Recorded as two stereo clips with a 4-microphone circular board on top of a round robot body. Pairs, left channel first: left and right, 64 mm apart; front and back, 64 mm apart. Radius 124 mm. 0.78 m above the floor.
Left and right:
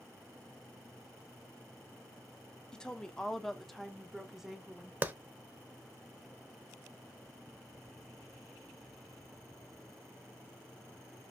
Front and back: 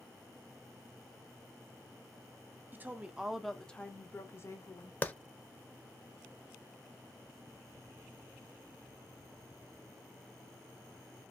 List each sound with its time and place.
2.7 s a woman speaking: 155° left, 0.7 m; by 4.9 s 10° right, 1.0 m
5.0 s a clap: 45° right, 0.7 m